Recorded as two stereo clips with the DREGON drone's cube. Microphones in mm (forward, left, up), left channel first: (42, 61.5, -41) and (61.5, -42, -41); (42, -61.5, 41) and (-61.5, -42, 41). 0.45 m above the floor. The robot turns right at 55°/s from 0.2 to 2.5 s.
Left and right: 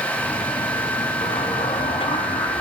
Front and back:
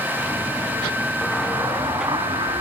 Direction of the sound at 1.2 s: 70° left.